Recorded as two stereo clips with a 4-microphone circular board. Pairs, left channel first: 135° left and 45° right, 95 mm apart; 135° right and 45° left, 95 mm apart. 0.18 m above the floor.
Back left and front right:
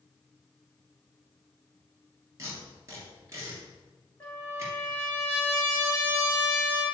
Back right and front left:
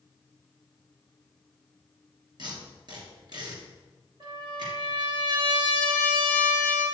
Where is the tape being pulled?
10° left, 3 m.